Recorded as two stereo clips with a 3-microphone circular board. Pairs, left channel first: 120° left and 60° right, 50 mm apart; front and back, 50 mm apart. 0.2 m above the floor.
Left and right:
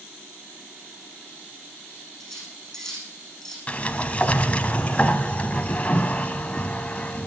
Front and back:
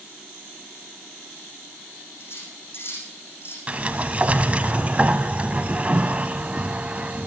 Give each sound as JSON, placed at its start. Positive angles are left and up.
{"t": 2.2, "sound": "cutlery clinking", "azimuth_deg": 35, "distance_m": 7.0}
{"t": 3.7, "sound": "a sliding door", "azimuth_deg": 150, "distance_m": 0.6}